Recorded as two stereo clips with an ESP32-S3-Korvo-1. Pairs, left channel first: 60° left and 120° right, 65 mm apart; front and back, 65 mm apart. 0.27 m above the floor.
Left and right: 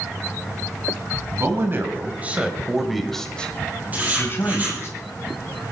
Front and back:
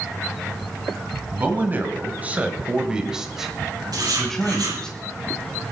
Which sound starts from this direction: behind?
Writing, at 3.9 s.